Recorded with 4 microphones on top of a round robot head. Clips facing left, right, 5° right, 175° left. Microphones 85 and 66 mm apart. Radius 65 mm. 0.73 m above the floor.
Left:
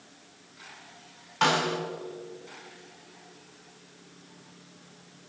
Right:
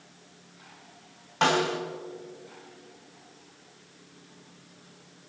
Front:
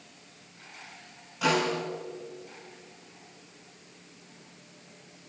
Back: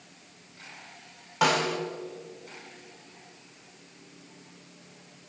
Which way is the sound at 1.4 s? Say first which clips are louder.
Right 1 dB, back 1 dB; 150° right.